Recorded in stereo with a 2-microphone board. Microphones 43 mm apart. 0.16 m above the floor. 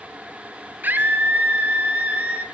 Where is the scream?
45° right (ahead or behind), 3 m; by 2.5 s 25° right (ahead or behind), 3.5 m.